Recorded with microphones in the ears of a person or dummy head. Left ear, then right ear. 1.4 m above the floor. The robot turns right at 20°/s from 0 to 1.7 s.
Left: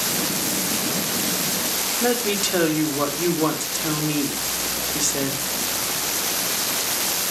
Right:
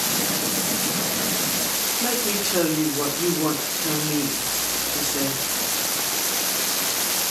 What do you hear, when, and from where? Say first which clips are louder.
2.0 s a woman speaking: left 5 dB; 70° left (ahead or behind), 3.5 m